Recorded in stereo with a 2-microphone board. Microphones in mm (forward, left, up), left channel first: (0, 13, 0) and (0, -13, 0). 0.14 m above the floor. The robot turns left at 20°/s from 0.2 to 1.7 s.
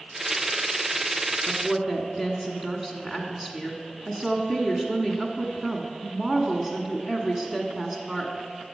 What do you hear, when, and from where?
1.5 s a woman speaking: 15° right (ahead or behind), 1.1 m